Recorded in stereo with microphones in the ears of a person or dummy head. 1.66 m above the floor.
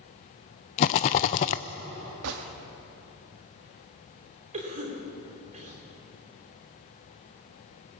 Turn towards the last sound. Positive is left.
turn(degrees=-40)  # may be behind; listen again after turning